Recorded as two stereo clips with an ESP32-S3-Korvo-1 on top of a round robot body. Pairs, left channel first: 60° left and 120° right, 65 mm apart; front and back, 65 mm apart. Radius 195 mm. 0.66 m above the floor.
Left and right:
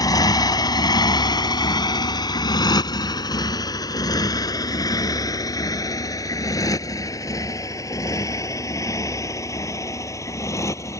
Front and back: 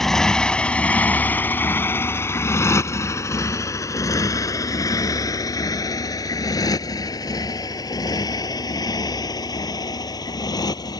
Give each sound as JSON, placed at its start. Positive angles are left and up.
{"t": 0.0, "sound": "a motorcycle", "azimuth_deg": 85}